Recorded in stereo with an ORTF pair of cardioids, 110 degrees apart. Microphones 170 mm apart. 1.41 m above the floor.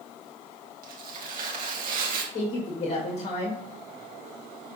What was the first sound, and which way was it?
Tearing paper, 60° right.